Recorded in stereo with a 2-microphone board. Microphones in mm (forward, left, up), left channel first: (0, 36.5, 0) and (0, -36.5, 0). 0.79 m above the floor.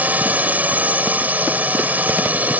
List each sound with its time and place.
0.0 s a drone: 25° right (ahead or behind)